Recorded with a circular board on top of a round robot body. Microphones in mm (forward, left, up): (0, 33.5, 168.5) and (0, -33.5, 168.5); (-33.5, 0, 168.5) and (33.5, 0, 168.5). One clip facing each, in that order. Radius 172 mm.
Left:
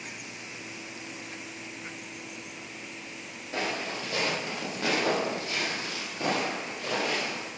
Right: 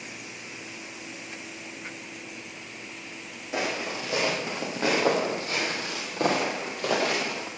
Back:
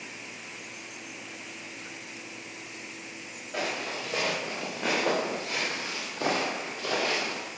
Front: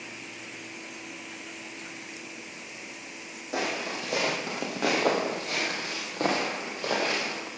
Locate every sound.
3.5 s footsteps: 15° right, 3 m; by 7.5 s 65° right, 2 m